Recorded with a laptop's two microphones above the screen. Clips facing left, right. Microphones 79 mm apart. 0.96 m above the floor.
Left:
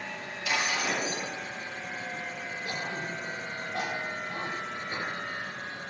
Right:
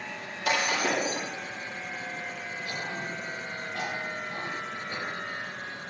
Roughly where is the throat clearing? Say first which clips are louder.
Even; left.